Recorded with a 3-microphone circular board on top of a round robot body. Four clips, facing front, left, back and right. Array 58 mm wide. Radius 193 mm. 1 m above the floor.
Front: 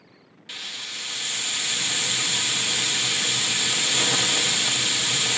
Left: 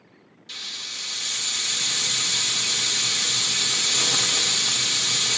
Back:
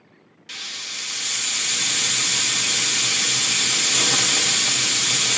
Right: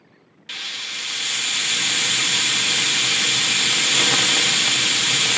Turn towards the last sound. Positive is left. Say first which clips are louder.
# right 7 dB, back 2 dB
turn(degrees=-95)